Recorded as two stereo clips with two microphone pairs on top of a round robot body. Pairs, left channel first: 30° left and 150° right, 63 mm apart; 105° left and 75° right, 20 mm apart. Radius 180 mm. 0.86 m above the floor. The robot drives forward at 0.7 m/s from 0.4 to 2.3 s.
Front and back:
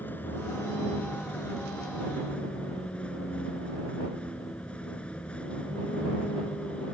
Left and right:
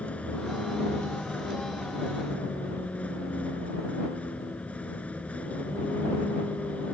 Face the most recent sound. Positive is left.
turn(degrees=100)